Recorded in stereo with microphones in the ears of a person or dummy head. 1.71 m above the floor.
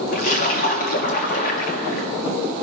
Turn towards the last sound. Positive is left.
turn(degrees=35)  # may be behind; listen again after turning